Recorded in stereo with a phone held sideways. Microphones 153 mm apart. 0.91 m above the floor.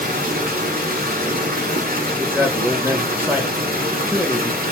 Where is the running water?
90° right, 1.3 m.